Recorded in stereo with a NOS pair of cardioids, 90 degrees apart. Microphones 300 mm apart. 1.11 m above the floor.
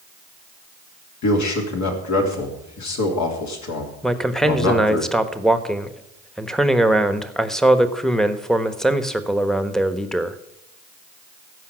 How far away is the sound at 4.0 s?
About 1.2 m.